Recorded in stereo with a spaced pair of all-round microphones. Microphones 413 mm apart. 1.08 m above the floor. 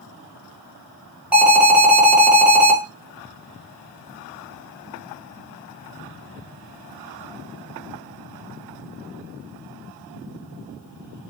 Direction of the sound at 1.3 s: 5° right (ahead or behind).